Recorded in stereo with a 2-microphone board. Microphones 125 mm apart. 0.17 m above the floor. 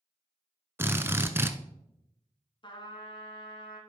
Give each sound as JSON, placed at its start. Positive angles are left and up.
{"t": 0.8, "sound": "a drill", "side_deg": -20, "distance_m": 0.7}
{"t": 2.6, "sound": "a trumpet", "side_deg": 40, "distance_m": 1.9}